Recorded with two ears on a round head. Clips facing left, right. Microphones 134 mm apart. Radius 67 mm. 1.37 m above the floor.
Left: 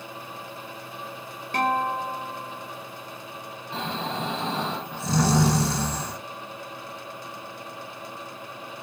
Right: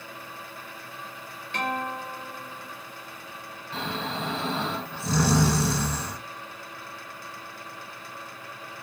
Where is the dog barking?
No dog barking in this recording.